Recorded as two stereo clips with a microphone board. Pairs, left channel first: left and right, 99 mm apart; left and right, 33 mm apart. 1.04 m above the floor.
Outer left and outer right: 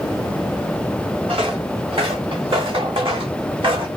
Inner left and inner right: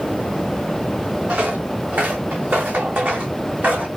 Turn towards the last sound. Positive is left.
turn(degrees=-65)  # may be behind; listen again after turning